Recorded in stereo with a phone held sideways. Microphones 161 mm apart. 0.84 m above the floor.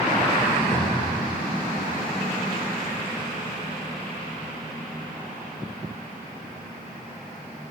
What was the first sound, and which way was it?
A cupboard door, 70° left (ahead or behind).